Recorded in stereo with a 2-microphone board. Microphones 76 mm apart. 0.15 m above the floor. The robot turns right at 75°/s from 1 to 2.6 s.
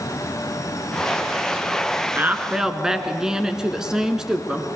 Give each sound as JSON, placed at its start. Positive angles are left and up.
{"t": 2.1, "sound": "a woman speaking", "azimuth_deg": -45, "distance_m": 1.4}